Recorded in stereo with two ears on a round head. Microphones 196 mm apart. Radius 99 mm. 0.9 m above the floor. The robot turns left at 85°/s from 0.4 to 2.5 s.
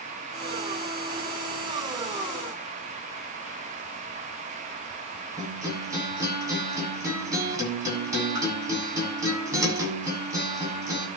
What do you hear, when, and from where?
5.4 s a guitar: 15° right (ahead or behind), 8 m